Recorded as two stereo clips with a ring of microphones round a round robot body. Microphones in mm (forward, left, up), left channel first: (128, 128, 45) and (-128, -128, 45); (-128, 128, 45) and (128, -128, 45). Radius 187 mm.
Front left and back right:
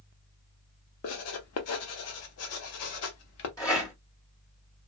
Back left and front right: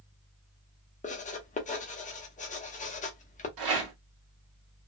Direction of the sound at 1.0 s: 70° left.